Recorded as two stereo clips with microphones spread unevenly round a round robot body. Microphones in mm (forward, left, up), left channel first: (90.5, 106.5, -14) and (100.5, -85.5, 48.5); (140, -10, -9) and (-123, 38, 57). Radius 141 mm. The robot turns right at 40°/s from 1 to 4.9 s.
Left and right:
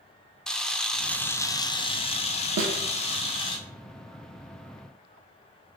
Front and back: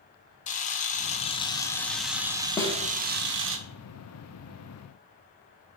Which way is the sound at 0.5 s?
25° left.